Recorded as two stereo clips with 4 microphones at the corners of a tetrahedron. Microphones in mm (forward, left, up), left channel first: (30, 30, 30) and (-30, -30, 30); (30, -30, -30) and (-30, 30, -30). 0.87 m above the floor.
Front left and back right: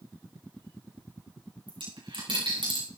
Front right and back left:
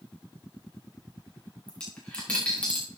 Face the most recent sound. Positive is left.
turn(degrees=-120)